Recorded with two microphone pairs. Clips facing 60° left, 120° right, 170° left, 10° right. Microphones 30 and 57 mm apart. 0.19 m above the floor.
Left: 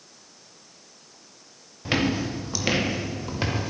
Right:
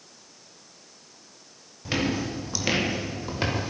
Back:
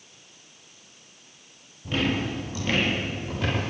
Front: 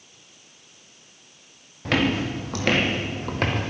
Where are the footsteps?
15° right, 3.5 m; by 3.7 s 40° right, 5 m.